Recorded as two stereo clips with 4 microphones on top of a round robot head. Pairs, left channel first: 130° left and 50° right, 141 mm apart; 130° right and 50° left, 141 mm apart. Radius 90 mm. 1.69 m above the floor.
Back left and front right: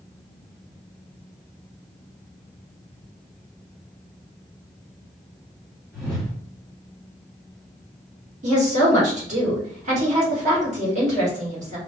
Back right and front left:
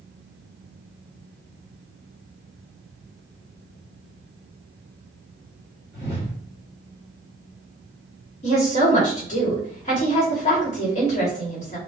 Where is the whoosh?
135° right, 1.5 m.